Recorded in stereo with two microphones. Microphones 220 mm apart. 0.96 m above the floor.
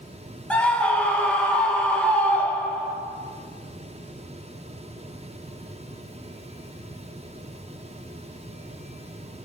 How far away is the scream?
About 0.9 m.